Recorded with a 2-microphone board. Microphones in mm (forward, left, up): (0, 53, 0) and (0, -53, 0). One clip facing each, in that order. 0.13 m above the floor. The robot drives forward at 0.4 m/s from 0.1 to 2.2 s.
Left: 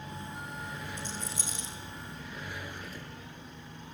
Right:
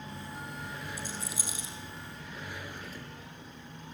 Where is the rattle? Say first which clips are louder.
Even; 10° right (ahead or behind), 6.5 m.